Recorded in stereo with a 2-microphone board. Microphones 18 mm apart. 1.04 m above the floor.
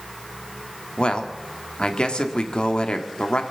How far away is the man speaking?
About 1.9 m.